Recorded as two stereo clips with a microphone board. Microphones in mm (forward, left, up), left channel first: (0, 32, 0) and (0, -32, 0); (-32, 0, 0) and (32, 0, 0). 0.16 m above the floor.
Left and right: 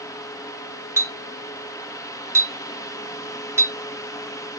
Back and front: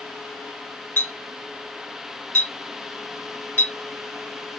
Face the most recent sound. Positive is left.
turn(degrees=-125)